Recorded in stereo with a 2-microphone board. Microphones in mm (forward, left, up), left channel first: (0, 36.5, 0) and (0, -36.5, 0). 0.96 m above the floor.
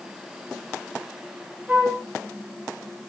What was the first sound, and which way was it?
A flute, 20° right (ahead or behind).